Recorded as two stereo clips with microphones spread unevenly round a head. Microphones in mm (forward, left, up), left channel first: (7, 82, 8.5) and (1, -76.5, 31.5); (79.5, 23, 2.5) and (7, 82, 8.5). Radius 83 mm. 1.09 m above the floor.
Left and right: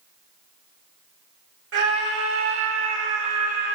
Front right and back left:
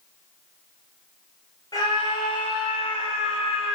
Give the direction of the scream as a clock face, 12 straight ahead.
4 o'clock.